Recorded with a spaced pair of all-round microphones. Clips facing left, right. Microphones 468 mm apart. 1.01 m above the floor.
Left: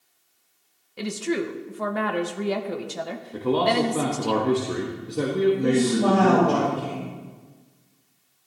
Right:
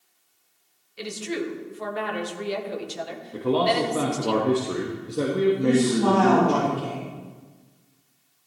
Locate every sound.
1.0 s a woman speaking: 65° left (ahead or behind), 0.9 m
3.3 s a man speaking: 5° left (ahead or behind), 1.3 m
5.6 s a woman speaking: 15° right (ahead or behind), 4.5 m